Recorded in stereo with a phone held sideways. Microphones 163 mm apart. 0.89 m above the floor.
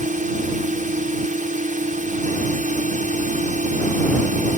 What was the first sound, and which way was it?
A drone, 55° right (ahead or behind).